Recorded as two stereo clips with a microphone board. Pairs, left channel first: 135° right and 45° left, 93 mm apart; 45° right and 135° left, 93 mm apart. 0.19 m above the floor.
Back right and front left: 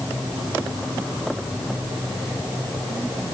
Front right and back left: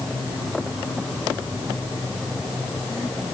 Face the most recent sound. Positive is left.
No sound to turn to.